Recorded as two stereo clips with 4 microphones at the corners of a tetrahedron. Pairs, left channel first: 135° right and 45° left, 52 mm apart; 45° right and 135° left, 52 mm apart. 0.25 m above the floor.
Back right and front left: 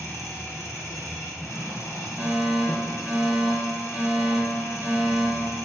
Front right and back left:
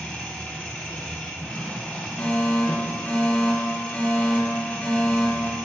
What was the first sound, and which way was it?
An engine running, 110° right.